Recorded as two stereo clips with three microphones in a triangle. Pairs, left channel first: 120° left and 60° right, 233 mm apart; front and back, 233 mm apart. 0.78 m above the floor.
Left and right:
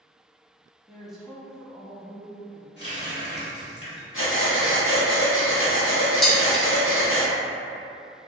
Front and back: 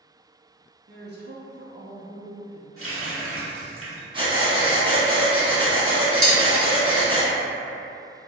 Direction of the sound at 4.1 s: 115° left.